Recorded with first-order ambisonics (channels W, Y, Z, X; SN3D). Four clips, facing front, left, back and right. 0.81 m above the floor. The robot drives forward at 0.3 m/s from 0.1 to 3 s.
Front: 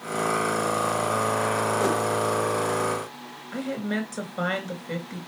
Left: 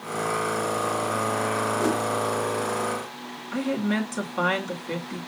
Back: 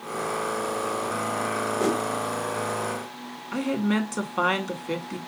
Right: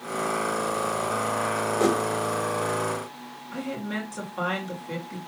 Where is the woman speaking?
165° left, 2 m.